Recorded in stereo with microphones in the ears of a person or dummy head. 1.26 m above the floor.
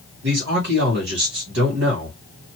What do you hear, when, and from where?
0.2 s a man speaking: 65° right (ahead or behind), 1.7 m